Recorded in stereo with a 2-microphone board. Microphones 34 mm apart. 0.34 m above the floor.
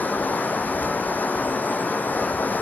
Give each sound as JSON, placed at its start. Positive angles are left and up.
{"t": 0.0, "sound": "running water", "side_deg": 65, "distance_m": 1.4}